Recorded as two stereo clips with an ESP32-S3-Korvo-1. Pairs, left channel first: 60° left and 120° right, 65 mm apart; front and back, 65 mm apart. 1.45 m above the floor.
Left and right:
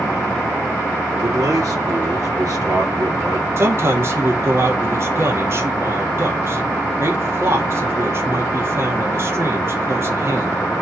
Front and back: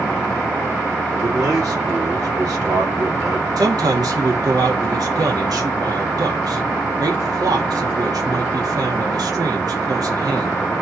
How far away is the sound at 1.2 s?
About 3.5 m.